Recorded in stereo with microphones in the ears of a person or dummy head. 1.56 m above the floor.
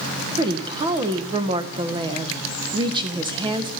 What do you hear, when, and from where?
0.4 s a woman speaking: 25° right (ahead or behind), 1.3 m